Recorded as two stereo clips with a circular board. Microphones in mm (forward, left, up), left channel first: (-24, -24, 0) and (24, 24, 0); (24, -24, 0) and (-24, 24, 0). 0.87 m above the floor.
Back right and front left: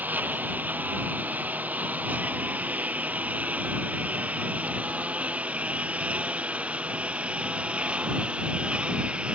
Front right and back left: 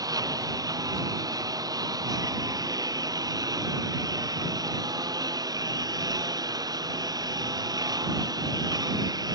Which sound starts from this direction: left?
A lawn mower, at 0.0 s.